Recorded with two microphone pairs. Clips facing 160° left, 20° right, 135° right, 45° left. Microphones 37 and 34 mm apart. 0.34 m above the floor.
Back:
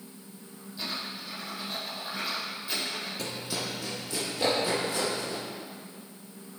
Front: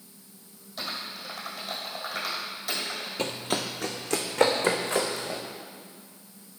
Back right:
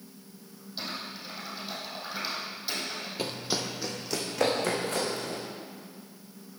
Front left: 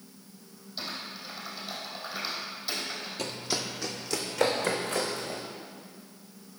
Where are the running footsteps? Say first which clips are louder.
Front 5 dB, back right 2 dB; 65° right, 0.7 m; by 5.4 s 45° right, 2.5 m.